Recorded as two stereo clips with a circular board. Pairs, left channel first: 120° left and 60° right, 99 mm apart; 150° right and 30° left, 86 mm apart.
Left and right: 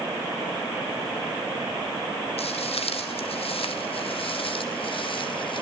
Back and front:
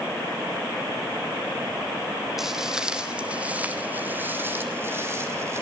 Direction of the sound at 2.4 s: 115° left.